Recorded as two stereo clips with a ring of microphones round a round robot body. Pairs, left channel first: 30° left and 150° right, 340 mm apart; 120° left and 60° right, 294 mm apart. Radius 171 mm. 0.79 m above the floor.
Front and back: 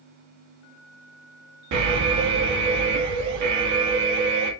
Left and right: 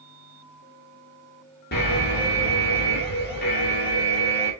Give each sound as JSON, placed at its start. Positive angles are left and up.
{"t": 1.7, "sound": "an alarm", "azimuth_deg": 180, "distance_m": 1.2}